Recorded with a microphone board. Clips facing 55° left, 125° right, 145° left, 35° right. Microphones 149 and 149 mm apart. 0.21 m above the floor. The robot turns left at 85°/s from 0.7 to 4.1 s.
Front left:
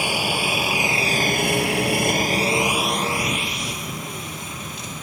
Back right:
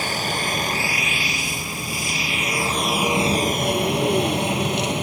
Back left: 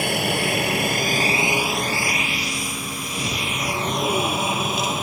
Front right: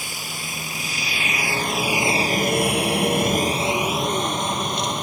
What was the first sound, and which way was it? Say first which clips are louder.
A helicopter: front left 2 dB, back left 13 dB; 135° left.